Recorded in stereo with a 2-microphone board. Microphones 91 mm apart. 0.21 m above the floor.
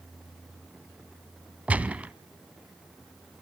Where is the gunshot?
15° right (ahead or behind), 0.6 m.